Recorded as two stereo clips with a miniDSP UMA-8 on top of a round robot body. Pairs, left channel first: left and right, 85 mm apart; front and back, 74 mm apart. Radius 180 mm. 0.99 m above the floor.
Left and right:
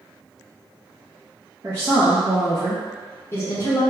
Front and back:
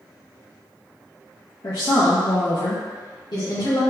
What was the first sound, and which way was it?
A woman speaking, 30° right.